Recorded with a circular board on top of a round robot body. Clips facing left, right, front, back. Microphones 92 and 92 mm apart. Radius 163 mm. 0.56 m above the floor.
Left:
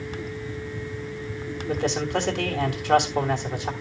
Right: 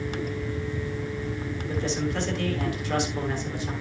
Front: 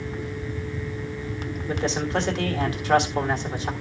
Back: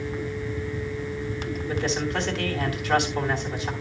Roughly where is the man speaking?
Ahead left.